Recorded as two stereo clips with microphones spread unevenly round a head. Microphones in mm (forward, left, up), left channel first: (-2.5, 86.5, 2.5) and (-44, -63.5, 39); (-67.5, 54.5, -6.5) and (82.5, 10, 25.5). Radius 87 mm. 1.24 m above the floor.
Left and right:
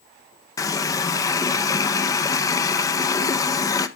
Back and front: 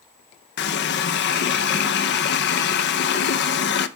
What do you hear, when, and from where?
0.6 s a running tap: 150° left, 0.6 m